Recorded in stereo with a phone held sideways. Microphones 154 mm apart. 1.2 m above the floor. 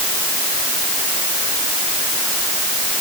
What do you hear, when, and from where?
Only background noise.